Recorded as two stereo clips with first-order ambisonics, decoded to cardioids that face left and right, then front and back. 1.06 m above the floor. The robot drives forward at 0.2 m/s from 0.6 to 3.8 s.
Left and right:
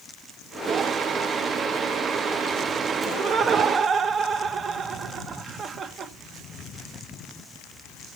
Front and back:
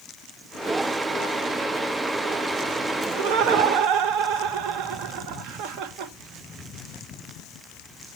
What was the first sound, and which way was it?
Laughter, 150° right.